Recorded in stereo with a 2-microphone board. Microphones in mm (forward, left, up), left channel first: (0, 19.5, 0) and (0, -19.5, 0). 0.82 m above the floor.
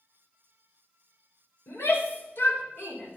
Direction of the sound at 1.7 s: 65° left (ahead or behind).